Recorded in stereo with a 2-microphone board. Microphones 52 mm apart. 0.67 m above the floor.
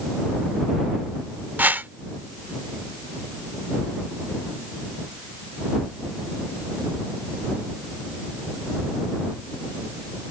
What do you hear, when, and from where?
1.6 s a whoosh: 35° right (ahead or behind)